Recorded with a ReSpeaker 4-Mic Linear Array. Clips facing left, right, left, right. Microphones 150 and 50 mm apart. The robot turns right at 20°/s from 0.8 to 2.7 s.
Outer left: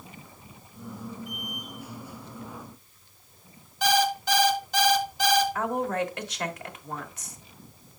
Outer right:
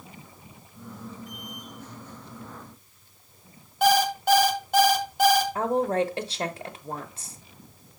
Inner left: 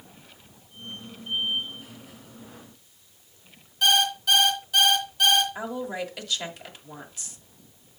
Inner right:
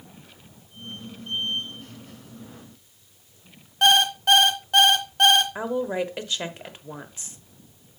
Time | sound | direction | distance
3.8 | an alarm clock | 55° right (ahead or behind) | 1.4 m
5.5 | a woman speaking | 30° right (ahead or behind) | 0.9 m